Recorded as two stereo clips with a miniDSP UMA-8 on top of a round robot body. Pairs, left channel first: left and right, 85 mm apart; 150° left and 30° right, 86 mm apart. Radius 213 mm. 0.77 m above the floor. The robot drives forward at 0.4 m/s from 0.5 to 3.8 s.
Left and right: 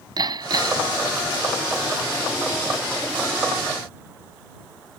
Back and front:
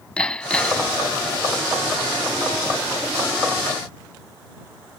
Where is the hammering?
130° right.